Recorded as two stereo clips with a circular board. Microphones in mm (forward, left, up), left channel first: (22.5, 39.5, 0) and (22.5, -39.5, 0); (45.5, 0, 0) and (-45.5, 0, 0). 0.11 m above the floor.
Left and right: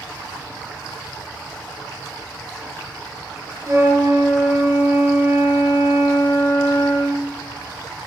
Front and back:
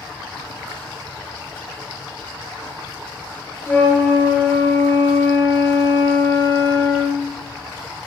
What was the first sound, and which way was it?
A flute, 60° right.